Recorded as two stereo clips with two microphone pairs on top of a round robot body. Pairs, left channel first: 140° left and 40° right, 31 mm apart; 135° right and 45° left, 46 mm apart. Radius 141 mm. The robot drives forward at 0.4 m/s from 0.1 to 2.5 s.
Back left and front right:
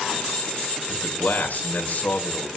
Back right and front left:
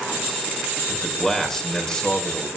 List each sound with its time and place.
0.9 s a man speaking: 140° left, 3.5 m; by 2.5 s 145° left, 4 m